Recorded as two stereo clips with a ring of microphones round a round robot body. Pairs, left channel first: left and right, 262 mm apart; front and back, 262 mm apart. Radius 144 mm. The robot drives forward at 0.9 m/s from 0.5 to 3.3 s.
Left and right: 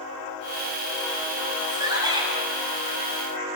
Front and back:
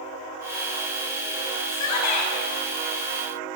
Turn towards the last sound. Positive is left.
turn(degrees=-20)